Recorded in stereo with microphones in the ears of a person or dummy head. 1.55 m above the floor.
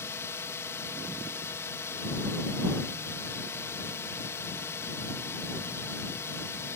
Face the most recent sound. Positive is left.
turn(degrees=15)  # may be behind; listen again after turning